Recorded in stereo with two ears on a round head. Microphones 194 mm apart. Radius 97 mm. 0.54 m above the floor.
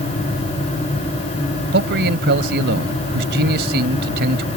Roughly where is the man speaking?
Right.